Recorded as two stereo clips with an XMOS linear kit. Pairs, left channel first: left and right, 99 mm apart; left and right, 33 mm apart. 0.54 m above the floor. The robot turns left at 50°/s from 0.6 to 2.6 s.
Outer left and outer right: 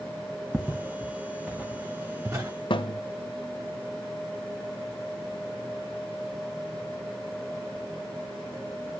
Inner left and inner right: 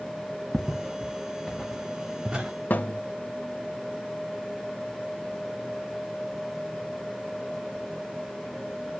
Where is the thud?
60° left (ahead or behind), 0.7 m.